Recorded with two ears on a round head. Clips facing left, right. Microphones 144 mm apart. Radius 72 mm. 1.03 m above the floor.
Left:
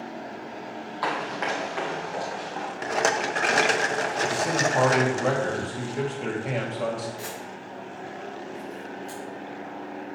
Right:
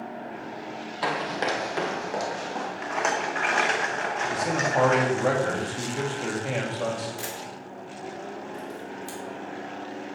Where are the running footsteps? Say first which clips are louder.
Right 1 dB; 25° right (ahead or behind), 1.5 m; by 2.7 s 55° right (ahead or behind), 2.5 m.